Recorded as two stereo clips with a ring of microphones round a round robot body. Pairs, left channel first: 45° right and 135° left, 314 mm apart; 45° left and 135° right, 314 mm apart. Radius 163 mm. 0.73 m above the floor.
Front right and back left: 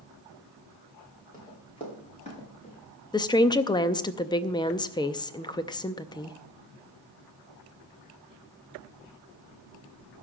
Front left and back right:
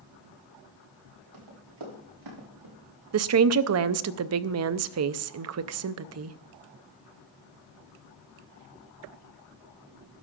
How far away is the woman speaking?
About 0.6 m.